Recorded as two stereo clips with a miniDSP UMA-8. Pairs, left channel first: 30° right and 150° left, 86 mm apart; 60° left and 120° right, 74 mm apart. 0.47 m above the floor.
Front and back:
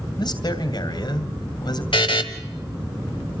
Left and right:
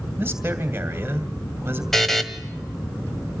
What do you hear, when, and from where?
0.2 s a man speaking: 60° right, 2.5 m
1.9 s a buzzer: 25° right, 1.7 m